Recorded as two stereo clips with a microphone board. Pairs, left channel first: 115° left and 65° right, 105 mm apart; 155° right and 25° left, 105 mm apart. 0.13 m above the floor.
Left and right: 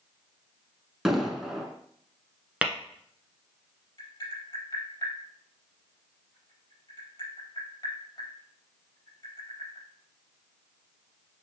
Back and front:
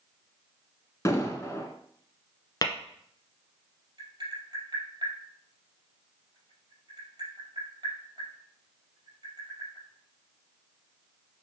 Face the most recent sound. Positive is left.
turn(degrees=65)